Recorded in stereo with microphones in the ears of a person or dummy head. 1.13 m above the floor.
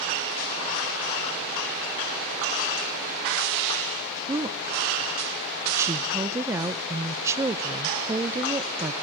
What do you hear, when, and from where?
4.3 s a woman speaking: 15° right (ahead or behind), 0.6 m